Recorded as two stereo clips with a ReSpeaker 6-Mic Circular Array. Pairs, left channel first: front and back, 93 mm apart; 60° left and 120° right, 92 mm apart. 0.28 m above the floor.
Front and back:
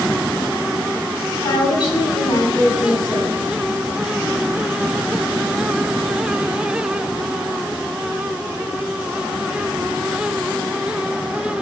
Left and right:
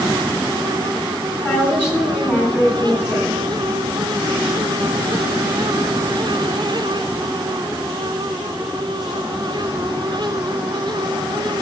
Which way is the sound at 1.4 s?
5° right.